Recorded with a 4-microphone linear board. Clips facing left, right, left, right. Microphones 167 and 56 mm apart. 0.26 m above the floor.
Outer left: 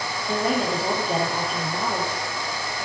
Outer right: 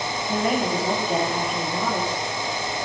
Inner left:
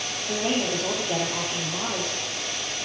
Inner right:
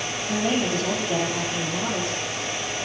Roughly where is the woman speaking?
Left.